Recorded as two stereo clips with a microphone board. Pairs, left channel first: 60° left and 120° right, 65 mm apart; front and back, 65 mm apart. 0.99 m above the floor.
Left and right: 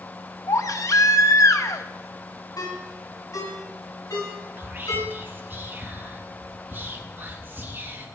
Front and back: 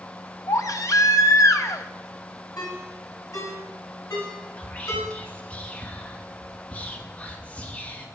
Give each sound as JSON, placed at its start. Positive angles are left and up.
{"t": 0.5, "sound": "a baby crying", "azimuth_deg": 30, "distance_m": 0.8}
{"t": 2.6, "sound": "a ringtone", "azimuth_deg": 30, "distance_m": 5.0}
{"t": 4.6, "sound": "whispering", "azimuth_deg": -65, "distance_m": 1.8}